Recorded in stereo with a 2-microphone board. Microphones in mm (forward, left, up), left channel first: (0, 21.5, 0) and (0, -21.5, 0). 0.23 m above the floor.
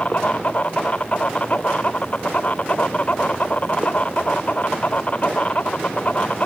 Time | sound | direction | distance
0.0 | an insect | 40° left (ahead or behind) | ?